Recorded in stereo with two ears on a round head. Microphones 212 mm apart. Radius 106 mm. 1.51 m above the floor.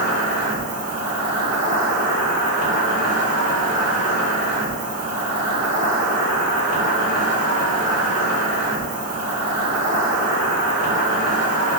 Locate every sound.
0.0 s an insect: 35° right (ahead or behind), 1.2 m